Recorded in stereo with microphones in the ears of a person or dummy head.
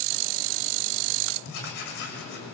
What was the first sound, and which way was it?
Writing, 60° left (ahead or behind).